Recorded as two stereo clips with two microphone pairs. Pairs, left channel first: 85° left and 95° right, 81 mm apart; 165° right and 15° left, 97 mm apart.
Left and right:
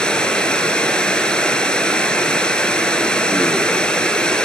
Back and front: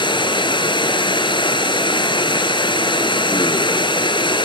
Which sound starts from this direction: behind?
Running water, at 0.0 s.